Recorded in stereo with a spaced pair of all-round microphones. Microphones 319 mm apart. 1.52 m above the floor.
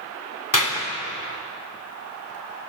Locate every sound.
0.5 s a clap: 75° left (ahead or behind), 3 m